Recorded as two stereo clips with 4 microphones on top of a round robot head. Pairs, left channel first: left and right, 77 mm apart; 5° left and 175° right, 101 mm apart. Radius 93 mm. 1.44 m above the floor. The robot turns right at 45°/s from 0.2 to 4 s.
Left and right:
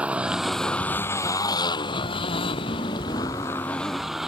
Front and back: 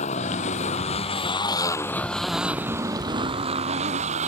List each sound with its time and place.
0.0 s a motorcycle: 15° right; by 4.3 s 175° right